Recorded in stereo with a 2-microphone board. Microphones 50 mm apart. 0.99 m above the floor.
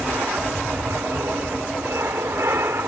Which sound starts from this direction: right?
An aircraft, at 0.0 s.